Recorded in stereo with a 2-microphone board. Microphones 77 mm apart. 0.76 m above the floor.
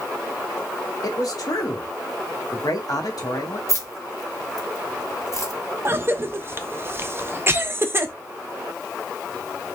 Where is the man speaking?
55° left (ahead or behind), 1.1 m.